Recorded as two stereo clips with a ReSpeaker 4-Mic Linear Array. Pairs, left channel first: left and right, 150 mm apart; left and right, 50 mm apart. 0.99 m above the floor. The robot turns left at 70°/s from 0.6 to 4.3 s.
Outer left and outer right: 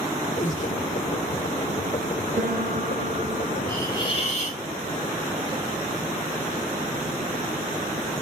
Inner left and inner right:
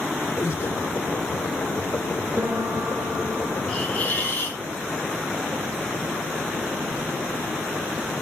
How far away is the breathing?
About 2.5 m.